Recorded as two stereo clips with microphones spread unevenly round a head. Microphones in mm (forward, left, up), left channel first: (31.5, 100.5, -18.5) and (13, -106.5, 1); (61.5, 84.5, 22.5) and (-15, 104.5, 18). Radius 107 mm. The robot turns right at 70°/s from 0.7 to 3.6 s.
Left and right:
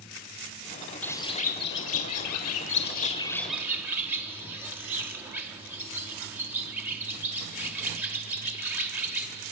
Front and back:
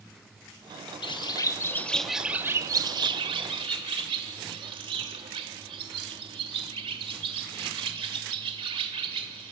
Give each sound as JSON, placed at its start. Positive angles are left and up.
{"t": 1.0, "sound": "a bird", "azimuth_deg": 0, "distance_m": 1.2}